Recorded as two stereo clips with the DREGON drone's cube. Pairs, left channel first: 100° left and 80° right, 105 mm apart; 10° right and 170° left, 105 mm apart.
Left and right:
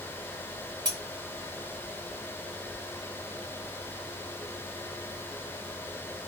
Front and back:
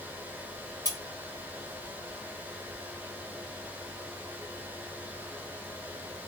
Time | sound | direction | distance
0.8 | cutlery clinking | 130° right | 1.6 m